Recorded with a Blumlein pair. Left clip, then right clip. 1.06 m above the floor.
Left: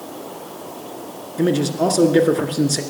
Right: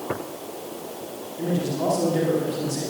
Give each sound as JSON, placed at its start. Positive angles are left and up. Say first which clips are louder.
{"t": 1.4, "sound": "a man speaking", "louder": "left 7 dB", "azimuth_deg": 60, "distance_m": 2.0}